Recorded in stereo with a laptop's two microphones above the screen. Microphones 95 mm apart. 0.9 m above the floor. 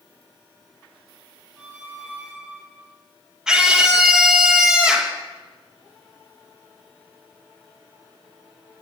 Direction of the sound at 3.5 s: 5° right (ahead or behind).